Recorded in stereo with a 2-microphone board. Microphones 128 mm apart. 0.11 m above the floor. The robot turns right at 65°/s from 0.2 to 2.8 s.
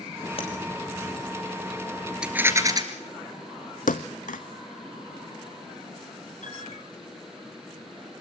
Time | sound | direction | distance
0.4 | tapping | 50° left (ahead or behind) | 4.5 m
2.2 | a rattle | 170° right | 2 m
3.9 | a thud | 90° left | 0.7 m
6.4 | a piano | 70° left (ahead or behind) | 5 m